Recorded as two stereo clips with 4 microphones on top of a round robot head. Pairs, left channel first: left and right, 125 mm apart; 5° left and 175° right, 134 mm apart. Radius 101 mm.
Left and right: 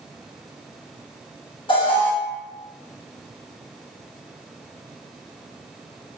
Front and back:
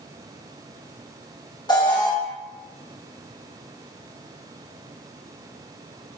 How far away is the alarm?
About 1.1 m.